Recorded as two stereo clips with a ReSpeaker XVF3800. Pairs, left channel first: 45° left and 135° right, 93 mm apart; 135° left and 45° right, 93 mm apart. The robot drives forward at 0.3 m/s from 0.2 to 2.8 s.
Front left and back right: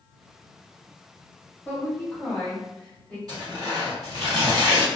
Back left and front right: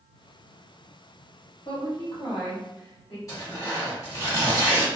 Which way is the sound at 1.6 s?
110° left.